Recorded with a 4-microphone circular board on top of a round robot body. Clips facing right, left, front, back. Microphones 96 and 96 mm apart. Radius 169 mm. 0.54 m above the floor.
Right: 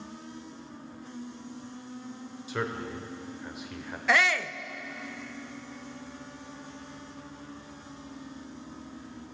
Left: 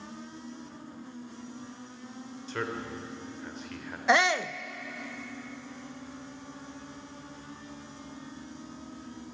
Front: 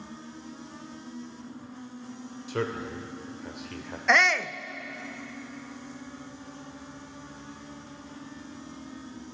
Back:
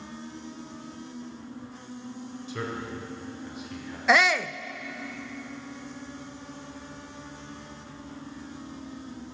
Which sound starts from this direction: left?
A shout, at 4.1 s.